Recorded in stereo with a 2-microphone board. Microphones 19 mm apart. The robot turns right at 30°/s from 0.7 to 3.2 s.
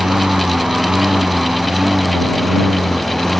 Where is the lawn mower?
55° right; by 3.4 s 20° left.